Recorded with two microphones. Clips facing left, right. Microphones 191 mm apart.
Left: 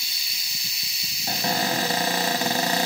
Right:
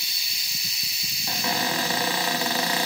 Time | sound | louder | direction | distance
1.3 | a cupboard door | left 2 dB | 45° left (ahead or behind) | 0.9 m